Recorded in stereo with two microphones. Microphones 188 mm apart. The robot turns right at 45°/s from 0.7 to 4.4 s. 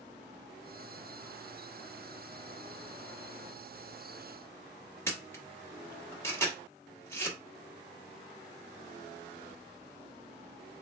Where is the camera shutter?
15° left (ahead or behind), 1.2 m.